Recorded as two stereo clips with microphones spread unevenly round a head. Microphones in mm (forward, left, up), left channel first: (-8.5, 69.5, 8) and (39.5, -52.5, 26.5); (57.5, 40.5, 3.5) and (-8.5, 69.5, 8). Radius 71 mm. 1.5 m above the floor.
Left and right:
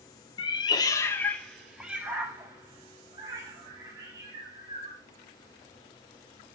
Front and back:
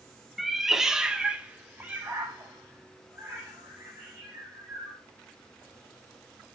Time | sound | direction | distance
0.4 | a cat meowing | 70° left | 0.8 m